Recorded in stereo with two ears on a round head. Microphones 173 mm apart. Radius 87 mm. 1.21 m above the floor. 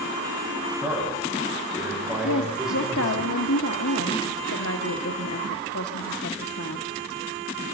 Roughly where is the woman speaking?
Left.